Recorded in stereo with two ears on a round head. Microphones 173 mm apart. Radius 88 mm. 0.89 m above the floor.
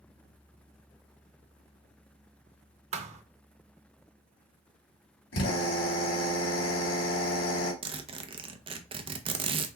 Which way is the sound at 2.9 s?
40° right (ahead or behind).